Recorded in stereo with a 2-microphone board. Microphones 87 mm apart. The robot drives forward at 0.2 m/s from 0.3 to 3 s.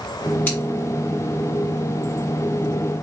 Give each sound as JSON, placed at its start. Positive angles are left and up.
{"t": 0.5, "sound": "scissors", "side_deg": 20, "distance_m": 1.8}